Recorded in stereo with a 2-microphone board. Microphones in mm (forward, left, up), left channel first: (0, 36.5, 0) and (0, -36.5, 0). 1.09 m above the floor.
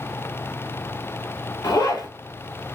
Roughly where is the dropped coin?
No dropped coin in this recording.